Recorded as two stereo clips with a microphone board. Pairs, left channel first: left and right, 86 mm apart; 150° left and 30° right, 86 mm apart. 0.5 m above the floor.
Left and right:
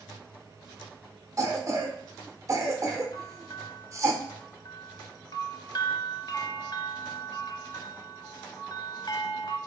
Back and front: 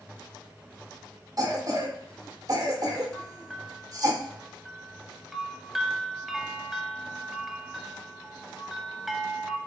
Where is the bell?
55° left, 0.6 m.